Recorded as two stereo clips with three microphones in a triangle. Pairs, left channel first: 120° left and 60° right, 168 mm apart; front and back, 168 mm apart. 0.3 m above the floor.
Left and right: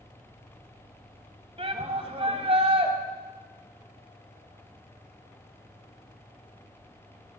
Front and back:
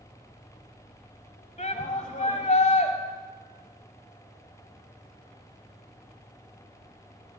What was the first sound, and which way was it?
A shout, 25° right.